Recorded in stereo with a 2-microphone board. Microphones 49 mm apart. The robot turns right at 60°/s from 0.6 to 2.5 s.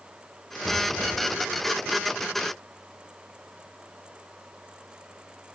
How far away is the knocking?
About 8 m.